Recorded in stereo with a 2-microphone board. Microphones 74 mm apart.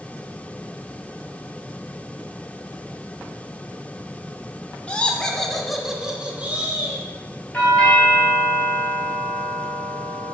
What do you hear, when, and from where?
4.9 s laughter: 15° left (ahead or behind), 1.3 m; by 7.0 s 30° right (ahead or behind), 1.4 m
7.5 s a doorbell: 15° left (ahead or behind), 3.5 m